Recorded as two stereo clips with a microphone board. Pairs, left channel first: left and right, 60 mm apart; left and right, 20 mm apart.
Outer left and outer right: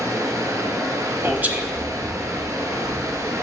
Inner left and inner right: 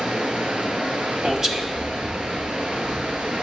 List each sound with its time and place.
0.0 s running water: 70° right (ahead or behind), 1.5 m
1.2 s a man speaking: 30° right (ahead or behind), 1.0 m